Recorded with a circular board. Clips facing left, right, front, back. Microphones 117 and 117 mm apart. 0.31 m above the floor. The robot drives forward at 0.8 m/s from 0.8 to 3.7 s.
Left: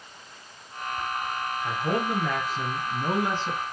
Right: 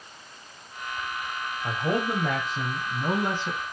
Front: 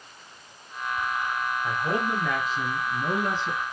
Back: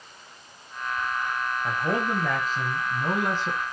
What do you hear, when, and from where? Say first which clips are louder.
1.6 s a man speaking: right 1 dB, back 1 dB; 120° right, 1.2 m; by 3.6 s 160° right, 2 m